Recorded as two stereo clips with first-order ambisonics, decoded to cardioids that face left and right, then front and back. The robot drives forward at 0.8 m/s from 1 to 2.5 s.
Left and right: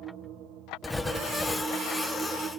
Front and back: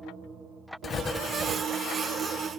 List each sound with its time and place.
0.8 s writing: 10° left, 0.6 m; by 1.6 s 175° left, 0.6 m